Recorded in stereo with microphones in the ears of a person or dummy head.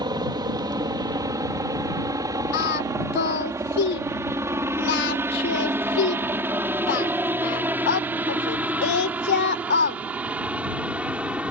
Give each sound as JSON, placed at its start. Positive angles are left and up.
{"t": 0.0, "sound": "a helicopter", "side_deg": -25}
{"t": 2.5, "sound": "singing", "side_deg": 60}